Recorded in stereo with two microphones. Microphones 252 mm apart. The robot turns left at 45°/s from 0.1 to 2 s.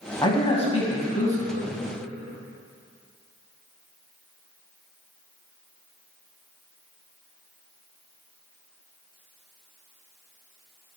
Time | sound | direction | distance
0.2 | a man speaking | 15° left (ahead or behind) | 1.2 m